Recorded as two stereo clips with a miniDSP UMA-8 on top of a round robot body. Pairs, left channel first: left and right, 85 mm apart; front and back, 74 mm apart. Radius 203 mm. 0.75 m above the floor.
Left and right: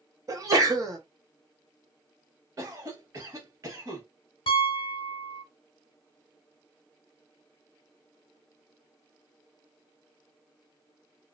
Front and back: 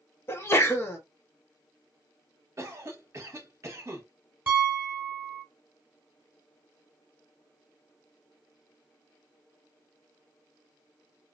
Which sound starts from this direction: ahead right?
A sneeze, at 0.3 s.